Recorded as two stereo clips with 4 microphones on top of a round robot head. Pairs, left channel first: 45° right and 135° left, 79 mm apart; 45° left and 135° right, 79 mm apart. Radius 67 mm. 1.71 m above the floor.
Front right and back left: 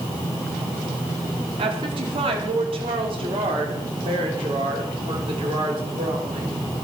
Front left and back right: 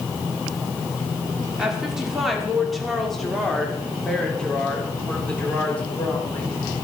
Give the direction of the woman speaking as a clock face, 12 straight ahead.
7 o'clock.